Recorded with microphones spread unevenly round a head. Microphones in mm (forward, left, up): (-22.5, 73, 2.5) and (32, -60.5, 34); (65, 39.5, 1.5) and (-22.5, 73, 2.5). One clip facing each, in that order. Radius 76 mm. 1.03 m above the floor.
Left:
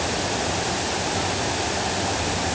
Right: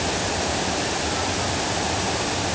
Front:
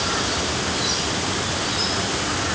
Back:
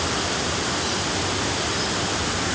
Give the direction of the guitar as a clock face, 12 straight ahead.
No guitar in this recording.